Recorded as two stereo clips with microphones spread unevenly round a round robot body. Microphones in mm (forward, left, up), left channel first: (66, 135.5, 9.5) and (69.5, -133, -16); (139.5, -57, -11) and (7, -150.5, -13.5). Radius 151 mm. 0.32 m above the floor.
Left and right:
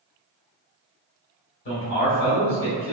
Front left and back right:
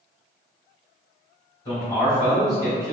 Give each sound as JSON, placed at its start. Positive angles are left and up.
{"t": 1.6, "sound": "a man speaking", "azimuth_deg": 95, "distance_m": 1.2}